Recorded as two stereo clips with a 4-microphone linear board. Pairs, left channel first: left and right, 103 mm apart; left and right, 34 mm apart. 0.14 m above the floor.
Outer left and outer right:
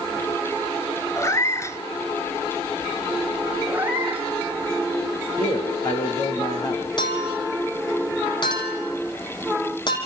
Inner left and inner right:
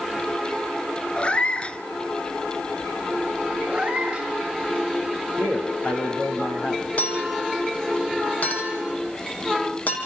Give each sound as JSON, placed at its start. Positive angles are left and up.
{"t": 1.2, "sound": "a cat meowing", "side_deg": 30, "distance_m": 1.2}
{"t": 3.7, "sound": "a cat meowing", "side_deg": -15, "distance_m": 4.5}
{"t": 5.4, "sound": "a man speaking", "side_deg": 40, "distance_m": 7.0}
{"t": 7.0, "sound": "a clink", "side_deg": 50, "distance_m": 5.0}